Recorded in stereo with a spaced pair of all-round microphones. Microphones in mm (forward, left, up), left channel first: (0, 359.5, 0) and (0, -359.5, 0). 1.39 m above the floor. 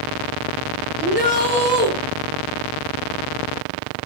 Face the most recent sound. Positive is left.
turn(degrees=-55)  # may be behind; listen again after turning